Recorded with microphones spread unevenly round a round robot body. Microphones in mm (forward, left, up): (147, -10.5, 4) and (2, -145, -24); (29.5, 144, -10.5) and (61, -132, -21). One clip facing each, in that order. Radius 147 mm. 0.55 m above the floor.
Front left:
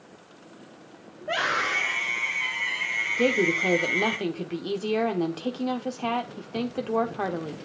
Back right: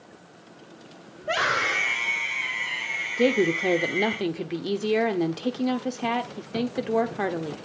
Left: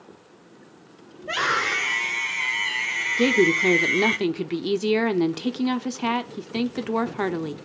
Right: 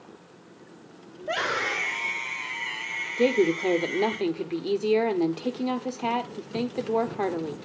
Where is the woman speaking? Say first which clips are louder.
Back right 2 dB, left 2 dB; 155° left, 0.9 m.